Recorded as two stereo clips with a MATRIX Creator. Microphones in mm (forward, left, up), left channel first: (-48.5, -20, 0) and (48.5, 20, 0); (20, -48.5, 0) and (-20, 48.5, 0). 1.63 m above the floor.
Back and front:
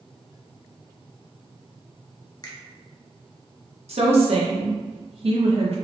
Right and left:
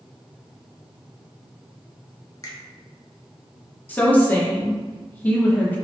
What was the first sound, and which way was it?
A finger snap, 115° right.